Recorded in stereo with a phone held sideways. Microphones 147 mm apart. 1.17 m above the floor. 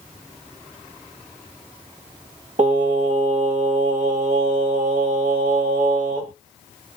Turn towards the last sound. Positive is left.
turn(degrees=-55)  # may be behind; listen again after turning